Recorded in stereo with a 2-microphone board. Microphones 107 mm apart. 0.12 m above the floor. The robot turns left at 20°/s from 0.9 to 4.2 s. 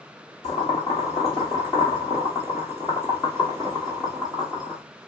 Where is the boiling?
55° left (ahead or behind), 1.9 m; by 4.8 s 5° right (ahead or behind), 1.9 m.